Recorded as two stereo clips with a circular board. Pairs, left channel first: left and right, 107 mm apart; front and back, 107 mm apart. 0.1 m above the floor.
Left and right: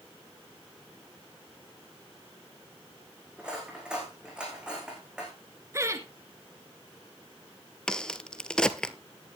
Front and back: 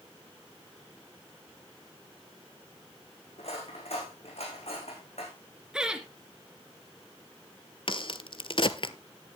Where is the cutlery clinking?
10° right, 5 m.